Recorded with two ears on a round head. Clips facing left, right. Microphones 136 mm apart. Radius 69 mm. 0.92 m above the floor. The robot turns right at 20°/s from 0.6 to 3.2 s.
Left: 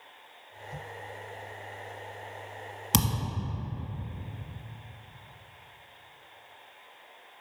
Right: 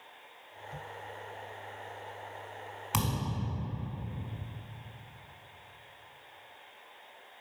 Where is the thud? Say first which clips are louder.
Left 3 dB; 45° left (ahead or behind), 1.1 m; by 3.4 s 40° left (ahead or behind), 1.1 m.